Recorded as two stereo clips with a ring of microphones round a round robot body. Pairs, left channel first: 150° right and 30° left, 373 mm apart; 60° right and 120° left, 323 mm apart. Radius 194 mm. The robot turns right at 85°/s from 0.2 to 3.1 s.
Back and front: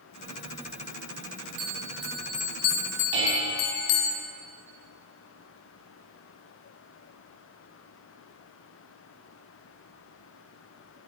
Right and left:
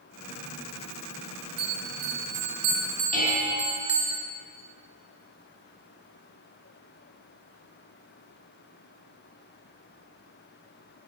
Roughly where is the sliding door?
I don't hear a sliding door.